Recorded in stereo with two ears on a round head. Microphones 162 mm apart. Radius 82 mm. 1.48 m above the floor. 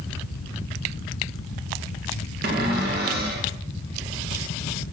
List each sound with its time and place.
2.4 s a cupboard door: 60° right (ahead or behind), 2 m